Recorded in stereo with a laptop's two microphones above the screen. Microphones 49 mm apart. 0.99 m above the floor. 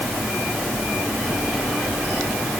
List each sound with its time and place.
Only background noise.